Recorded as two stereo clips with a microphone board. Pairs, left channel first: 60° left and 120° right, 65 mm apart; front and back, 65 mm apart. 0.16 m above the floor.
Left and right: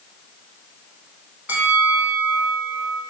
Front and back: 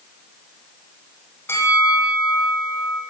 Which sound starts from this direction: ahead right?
A bell, at 1.5 s.